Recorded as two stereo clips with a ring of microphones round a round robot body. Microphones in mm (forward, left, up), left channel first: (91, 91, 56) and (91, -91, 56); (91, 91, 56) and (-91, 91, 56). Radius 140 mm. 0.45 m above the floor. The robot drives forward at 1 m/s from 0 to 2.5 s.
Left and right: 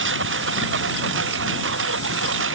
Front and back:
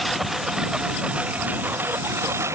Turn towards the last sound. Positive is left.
turn(degrees=-100)